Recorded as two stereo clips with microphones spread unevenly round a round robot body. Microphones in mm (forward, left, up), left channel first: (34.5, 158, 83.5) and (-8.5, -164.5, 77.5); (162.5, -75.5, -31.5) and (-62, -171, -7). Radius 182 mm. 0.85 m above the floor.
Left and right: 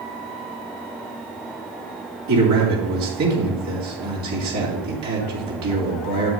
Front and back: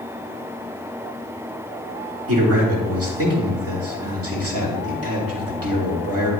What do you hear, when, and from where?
2.3 s a man speaking: 135° right, 2.5 m